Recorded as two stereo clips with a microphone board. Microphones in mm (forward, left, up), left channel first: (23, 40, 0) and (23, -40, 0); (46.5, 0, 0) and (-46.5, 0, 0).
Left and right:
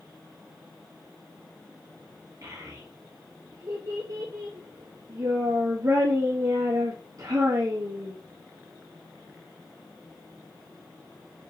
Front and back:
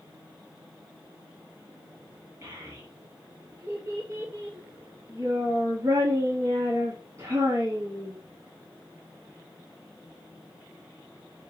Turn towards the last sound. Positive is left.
turn(degrees=-125)